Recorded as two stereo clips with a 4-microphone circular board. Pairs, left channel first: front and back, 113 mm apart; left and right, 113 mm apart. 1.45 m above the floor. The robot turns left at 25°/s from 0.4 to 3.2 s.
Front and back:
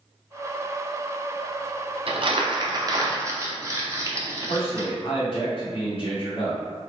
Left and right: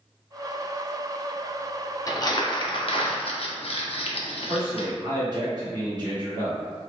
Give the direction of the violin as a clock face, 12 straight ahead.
No violin in this recording.